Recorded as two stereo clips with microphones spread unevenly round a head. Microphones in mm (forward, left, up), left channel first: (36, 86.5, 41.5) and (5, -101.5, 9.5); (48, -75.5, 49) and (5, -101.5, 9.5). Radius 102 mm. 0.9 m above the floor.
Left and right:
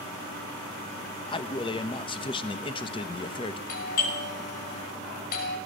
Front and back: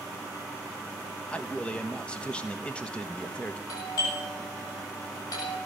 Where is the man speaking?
145° left, 1.1 m.